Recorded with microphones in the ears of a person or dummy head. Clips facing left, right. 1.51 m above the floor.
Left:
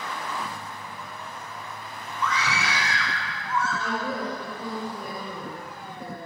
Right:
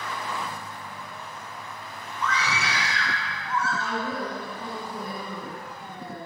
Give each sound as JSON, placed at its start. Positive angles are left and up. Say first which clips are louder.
{"t": 2.2, "sound": "a scream", "louder": "left 1 dB", "side_deg": 75, "distance_m": 6.0}
{"t": 3.8, "sound": "a woman speaking", "louder": "left 1 dB", "side_deg": 55, "distance_m": 6.5}